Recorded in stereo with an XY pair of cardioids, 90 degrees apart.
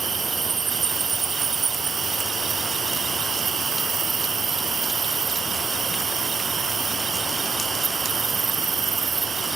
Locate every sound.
0.0 s an insect: 45° right